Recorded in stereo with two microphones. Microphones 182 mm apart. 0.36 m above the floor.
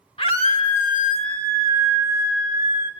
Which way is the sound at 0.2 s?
30° left (ahead or behind).